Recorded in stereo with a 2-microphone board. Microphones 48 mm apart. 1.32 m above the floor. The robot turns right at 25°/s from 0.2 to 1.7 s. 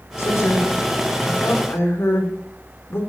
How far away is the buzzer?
I don't hear a buzzer.